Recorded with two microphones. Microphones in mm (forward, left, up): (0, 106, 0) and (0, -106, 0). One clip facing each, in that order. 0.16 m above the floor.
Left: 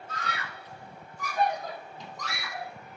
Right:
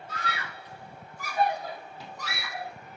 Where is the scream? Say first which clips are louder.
Right 1 dB; 5° right (ahead or behind), 6.5 m.